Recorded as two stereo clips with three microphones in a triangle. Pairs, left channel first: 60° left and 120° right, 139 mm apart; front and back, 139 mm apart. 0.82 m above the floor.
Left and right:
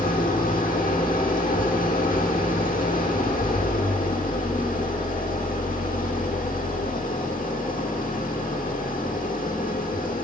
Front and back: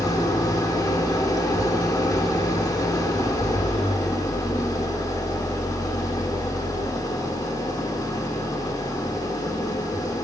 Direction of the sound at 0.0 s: 65° left.